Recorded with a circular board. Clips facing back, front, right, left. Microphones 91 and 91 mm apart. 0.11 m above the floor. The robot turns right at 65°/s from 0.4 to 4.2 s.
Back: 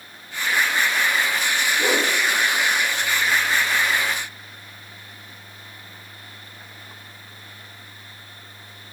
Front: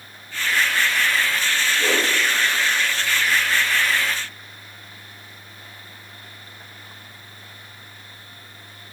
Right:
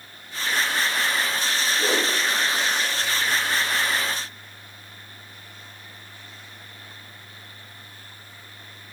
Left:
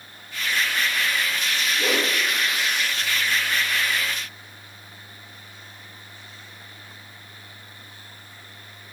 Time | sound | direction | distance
1.8 | a whoosh | 110° left | 2.5 m